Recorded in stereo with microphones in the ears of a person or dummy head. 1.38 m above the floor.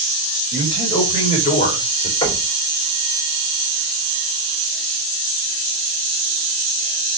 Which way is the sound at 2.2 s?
25° left (ahead or behind).